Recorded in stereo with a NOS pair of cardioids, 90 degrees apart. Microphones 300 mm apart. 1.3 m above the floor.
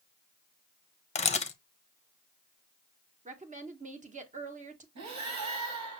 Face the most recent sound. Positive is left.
turn(degrees=-65)